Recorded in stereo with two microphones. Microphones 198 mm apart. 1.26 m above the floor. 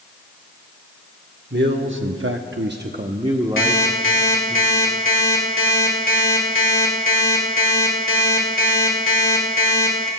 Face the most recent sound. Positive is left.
turn(degrees=75)  # may be behind; listen again after turning